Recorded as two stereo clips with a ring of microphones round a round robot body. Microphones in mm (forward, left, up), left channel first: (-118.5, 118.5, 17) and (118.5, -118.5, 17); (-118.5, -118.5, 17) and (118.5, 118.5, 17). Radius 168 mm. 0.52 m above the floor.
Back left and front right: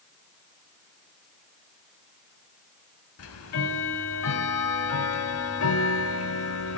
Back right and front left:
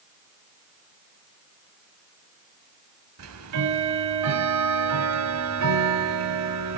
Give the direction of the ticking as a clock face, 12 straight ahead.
9 o'clock.